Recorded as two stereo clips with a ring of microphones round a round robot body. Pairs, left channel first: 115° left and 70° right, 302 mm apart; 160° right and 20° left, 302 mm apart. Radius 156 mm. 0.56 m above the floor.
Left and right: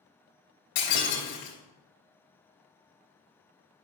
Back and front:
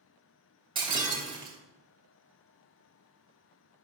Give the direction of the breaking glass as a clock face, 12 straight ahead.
9 o'clock.